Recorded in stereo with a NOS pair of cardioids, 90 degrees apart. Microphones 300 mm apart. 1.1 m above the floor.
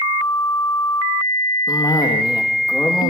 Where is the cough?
10° left, 1.5 m.